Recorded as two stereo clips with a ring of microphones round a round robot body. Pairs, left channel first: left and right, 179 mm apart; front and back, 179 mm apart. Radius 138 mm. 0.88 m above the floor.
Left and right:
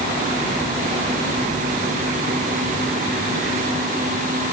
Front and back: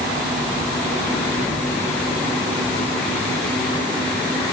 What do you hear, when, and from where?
Only background noise.